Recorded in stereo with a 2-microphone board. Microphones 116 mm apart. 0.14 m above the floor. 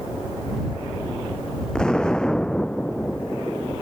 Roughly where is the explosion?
Centre.